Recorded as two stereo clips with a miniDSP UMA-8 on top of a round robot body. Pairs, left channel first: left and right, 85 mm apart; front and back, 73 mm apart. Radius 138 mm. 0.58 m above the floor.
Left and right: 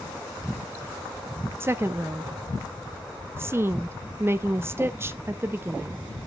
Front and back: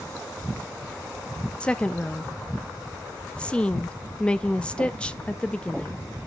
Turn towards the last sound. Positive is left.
turn(degrees=-65)